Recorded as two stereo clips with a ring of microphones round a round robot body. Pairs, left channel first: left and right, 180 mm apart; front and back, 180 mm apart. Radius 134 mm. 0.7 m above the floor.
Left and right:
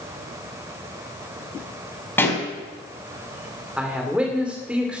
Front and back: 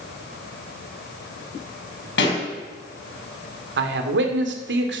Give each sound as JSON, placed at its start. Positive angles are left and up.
{"t": 2.2, "sound": "a pop", "azimuth_deg": 10, "distance_m": 4.0}
{"t": 3.8, "sound": "a man speaking", "azimuth_deg": -175, "distance_m": 2.0}